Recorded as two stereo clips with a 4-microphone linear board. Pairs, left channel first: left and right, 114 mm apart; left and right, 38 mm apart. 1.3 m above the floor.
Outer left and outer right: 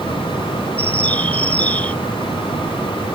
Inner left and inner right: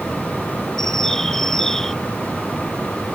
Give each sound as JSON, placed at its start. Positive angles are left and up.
{"t": 0.8, "sound": "a bird", "side_deg": 10}